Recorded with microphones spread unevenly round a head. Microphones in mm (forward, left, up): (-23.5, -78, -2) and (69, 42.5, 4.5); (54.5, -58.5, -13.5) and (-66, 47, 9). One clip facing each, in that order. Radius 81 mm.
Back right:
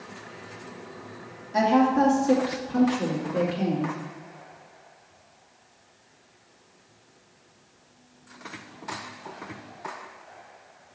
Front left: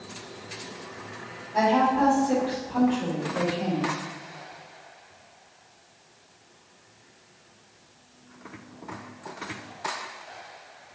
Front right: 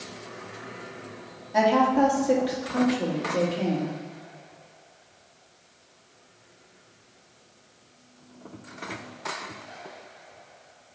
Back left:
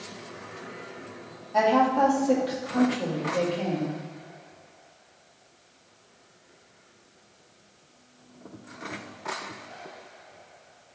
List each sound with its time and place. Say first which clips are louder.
1.5 s a woman speaking: back right 1 dB, front right 1 dB; 120° right, 2 m